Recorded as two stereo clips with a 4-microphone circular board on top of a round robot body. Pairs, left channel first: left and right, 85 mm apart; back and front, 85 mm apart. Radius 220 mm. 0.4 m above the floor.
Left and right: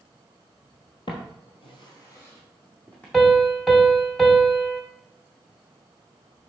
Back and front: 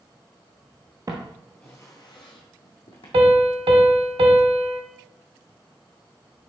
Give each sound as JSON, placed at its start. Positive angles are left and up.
{"t": 1.1, "sound": "footsteps", "azimuth_deg": 55, "distance_m": 0.8}
{"t": 3.1, "sound": "a piano", "azimuth_deg": 0, "distance_m": 0.9}